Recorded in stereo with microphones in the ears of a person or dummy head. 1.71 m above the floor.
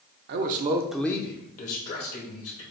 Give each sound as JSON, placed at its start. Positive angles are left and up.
{"t": 0.3, "sound": "a man speaking", "side_deg": -55, "distance_m": 0.7}